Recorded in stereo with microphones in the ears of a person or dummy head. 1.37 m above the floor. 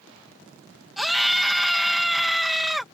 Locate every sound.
1.0 s a scream: centre (ahead or behind)